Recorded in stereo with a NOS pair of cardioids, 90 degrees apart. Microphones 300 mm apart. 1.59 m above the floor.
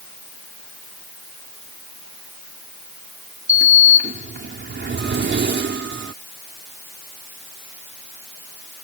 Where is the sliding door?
35° right.